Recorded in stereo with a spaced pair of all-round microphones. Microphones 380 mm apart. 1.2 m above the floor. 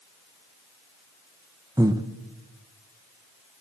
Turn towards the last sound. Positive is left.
turn(degrees=-10)  # may be behind; listen again after turning